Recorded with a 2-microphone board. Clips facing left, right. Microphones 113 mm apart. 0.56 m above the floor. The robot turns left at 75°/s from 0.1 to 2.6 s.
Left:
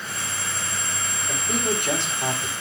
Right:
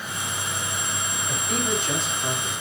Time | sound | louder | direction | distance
1.3 | a man speaking | left 1 dB | 165° left | 4.5 m